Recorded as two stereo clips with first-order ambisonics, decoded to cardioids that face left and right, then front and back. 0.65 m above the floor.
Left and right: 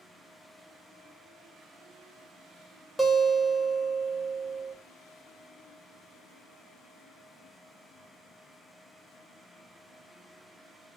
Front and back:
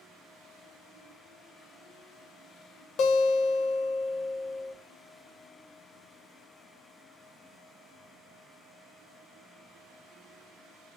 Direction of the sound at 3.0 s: 5° left.